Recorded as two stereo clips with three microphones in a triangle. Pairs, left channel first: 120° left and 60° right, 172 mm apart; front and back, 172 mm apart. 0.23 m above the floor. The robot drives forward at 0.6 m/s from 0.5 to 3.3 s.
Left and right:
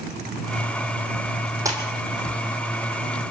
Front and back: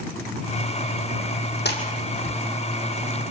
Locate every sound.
1.6 s a splash: 10° left, 4 m